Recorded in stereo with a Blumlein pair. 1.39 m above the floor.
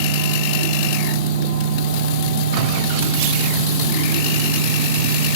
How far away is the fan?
About 6 m.